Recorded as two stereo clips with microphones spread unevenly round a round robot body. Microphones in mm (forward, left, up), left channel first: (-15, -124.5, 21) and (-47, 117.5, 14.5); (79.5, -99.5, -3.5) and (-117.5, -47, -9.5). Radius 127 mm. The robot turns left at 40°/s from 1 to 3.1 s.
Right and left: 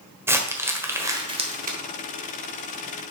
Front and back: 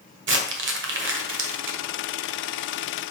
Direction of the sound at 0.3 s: 175° left.